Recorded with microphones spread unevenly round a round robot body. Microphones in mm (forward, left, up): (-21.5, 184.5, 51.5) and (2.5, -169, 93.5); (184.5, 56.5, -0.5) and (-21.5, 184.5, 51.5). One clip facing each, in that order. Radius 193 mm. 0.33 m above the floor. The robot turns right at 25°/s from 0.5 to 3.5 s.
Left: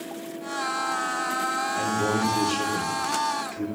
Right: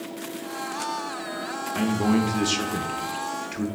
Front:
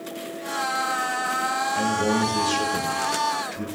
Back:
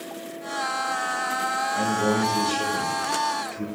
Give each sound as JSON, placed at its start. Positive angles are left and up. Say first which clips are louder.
{"t": 1.8, "sound": "a man speaking", "louder": "right 5 dB, even", "azimuth_deg": -95, "distance_m": 0.9}